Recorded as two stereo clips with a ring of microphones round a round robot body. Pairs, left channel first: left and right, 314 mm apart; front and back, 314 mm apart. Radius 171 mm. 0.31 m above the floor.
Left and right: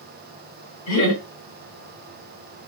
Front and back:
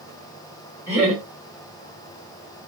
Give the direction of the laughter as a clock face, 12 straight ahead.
9 o'clock.